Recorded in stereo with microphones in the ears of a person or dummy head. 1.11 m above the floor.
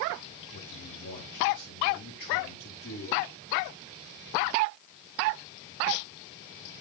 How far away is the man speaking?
About 7.5 m.